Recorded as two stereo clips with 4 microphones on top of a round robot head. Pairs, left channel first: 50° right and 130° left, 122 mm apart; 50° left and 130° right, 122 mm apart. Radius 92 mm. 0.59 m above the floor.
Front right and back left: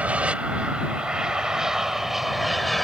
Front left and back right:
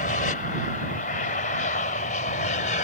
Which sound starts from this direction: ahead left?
An aircraft, at 0.0 s.